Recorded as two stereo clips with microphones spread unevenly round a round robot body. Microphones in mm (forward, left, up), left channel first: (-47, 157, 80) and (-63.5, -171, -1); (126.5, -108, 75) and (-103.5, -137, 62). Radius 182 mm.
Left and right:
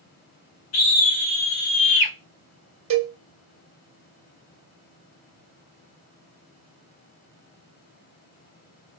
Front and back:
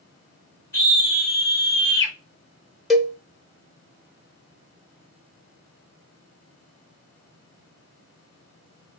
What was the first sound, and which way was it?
A scream, 85° left.